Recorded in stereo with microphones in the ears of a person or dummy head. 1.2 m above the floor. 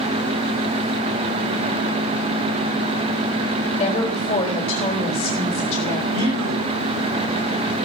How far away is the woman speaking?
About 4 m.